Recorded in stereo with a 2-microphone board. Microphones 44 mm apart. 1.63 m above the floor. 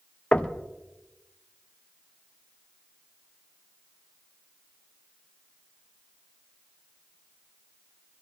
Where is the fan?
No fan in this recording.